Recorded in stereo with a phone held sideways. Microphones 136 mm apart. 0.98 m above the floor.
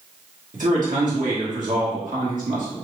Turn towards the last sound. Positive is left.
turn(degrees=-70)  # may be behind; listen again after turning